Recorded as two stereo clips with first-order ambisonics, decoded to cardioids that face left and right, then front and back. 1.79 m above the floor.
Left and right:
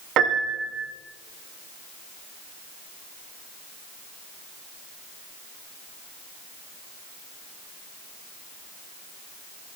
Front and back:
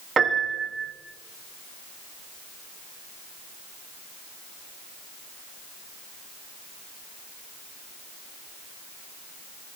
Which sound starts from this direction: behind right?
A piano, at 0.2 s.